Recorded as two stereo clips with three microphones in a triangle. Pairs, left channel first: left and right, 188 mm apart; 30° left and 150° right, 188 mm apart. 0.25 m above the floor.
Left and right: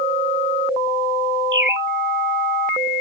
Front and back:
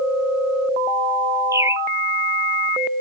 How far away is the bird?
About 1.0 m.